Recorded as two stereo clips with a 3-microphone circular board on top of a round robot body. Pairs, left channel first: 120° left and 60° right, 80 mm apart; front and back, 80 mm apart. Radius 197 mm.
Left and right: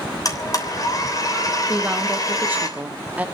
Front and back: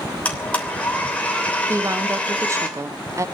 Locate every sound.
0.2 s a blender: 75° left, 3 m
1.7 s a woman speaking: 130° right, 1.2 m